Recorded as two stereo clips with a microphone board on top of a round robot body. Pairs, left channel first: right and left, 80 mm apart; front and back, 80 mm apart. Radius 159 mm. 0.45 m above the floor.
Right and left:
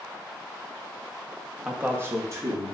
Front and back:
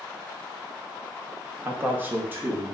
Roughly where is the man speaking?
Behind.